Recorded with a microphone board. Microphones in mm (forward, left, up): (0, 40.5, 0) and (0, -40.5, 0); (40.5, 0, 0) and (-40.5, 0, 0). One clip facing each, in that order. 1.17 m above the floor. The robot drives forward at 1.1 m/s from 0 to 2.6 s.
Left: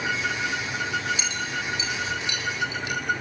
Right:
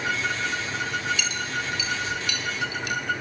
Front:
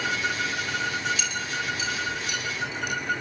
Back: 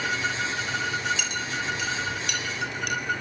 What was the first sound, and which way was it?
A clink, 150° left.